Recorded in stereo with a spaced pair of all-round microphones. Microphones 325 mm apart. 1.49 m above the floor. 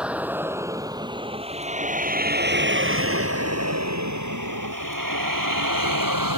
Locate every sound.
0.0 s a vehicle: 5° right (ahead or behind); by 6.4 s 85° right